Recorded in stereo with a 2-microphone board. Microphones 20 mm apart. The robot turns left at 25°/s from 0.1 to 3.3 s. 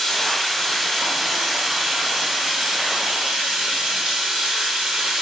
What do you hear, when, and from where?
0.0 s running water: 20° left, 1.1 m; by 5.2 s 60° right, 1.1 m